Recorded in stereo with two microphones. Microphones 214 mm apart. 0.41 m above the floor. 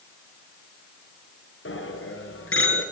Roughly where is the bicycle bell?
Left.